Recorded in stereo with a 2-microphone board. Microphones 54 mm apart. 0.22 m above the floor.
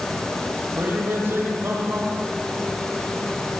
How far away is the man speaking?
About 8 m.